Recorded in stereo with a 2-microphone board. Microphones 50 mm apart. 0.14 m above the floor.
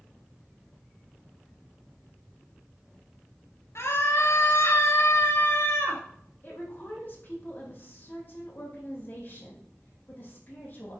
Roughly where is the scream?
Left.